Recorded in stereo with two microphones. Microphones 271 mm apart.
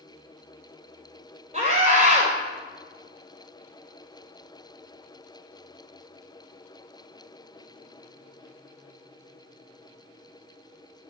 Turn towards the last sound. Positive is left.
turn(degrees=-25)  # may be behind; listen again after turning